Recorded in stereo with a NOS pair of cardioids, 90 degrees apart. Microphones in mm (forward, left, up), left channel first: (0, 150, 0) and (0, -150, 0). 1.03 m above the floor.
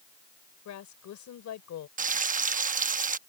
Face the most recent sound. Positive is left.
turn(degrees=-25)